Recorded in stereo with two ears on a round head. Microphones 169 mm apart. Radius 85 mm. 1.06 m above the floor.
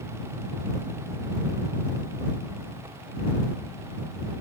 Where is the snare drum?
I don't hear a snare drum.